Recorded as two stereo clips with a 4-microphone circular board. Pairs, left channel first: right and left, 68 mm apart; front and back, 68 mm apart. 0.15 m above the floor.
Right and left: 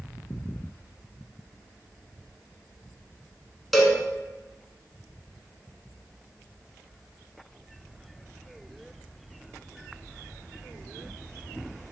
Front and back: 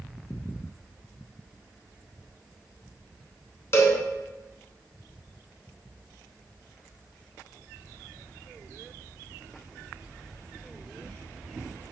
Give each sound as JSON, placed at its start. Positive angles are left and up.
{"t": 3.7, "sound": "a cowbell", "azimuth_deg": 0, "distance_m": 0.8}